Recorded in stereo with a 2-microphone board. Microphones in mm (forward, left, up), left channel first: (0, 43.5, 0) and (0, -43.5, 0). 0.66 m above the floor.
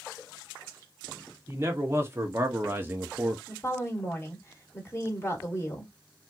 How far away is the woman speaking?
About 1.8 m.